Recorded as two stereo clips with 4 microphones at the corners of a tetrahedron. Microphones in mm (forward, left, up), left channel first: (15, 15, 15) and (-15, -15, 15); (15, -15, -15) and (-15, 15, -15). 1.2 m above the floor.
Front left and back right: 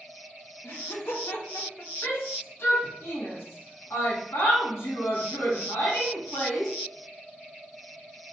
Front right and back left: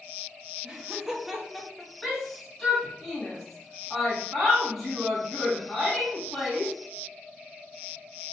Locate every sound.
0.6 s laughter: 65° left, 1.3 m; by 1.9 s 35° left, 1.1 m
2.0 s a shout: 40° left, 2 m